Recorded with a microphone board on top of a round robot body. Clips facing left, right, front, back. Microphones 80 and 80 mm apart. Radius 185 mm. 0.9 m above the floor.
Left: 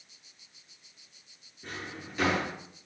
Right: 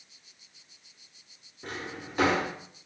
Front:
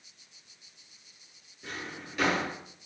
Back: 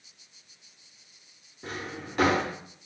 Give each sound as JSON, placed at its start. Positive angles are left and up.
{"t": 1.6, "sound": "a drawer", "azimuth_deg": -135, "distance_m": 0.5}